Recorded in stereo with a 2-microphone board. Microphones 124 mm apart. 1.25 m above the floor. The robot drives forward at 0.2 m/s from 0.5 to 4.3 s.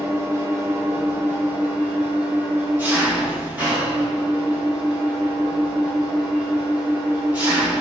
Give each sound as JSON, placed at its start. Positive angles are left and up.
{"t": 0.0, "sound": "an engine running", "side_deg": -20, "distance_m": 1.0}